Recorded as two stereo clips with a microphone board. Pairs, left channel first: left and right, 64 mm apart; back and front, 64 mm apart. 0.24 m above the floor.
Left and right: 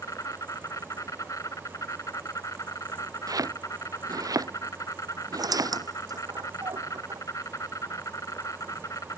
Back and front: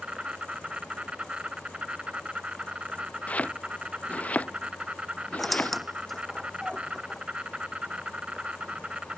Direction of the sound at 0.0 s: 70° left.